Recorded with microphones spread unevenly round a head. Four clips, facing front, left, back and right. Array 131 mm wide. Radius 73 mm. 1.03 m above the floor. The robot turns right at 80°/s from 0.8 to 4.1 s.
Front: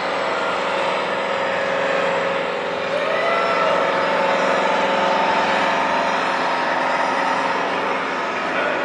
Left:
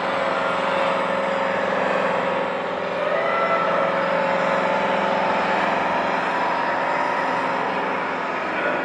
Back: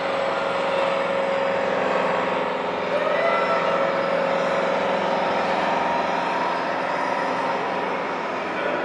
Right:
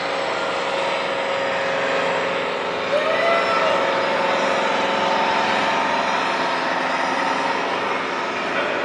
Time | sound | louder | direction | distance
0.0 | an engine running | left 1 dB, front 2 dB | 65° left | 10 m
2.9 | a cat meowing | right 4 dB, front 1 dB | 110° right | 3.5 m